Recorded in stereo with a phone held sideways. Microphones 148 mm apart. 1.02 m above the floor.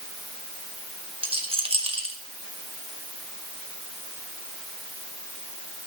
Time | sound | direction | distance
1.2 | a rattle | 40° right (ahead or behind) | 1.3 m